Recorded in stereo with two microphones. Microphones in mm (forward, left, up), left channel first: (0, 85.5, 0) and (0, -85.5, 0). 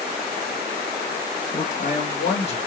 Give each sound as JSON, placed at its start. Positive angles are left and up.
{"t": 1.5, "sound": "a man speaking", "side_deg": 50, "distance_m": 1.7}